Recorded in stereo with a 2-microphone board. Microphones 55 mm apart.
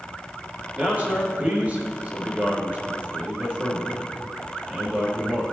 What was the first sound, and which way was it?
A man speaking, 30° right (ahead or behind).